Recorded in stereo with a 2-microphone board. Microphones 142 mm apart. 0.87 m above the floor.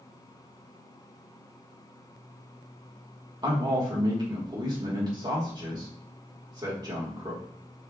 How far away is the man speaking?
About 1.6 m.